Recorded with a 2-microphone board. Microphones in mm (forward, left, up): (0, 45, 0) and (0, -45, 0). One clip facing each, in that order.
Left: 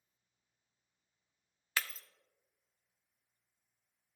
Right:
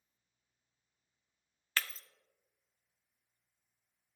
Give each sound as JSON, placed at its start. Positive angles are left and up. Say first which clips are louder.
{"t": 1.8, "sound": "breaking glass", "louder": "even", "side_deg": 10, "distance_m": 0.5}